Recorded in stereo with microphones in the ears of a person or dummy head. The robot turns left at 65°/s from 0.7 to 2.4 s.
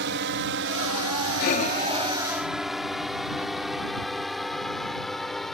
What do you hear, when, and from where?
0.0 s a drone: 55° right (ahead or behind); by 5.5 s centre (ahead or behind)
1.4 s breathing: 50° left (ahead or behind); by 4.3 s 15° right (ahead or behind)